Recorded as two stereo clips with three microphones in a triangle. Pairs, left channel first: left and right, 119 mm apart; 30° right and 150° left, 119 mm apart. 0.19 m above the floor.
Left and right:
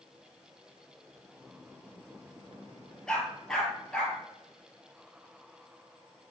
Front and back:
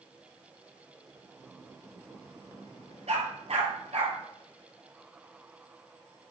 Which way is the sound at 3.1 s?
175° left.